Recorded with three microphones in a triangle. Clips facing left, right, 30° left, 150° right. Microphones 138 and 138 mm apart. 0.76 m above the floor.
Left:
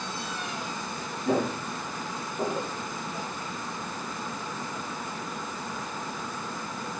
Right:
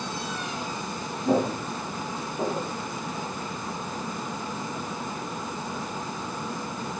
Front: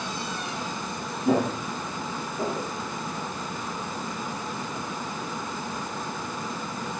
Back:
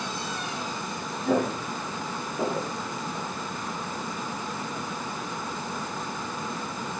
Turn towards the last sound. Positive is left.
turn(degrees=170)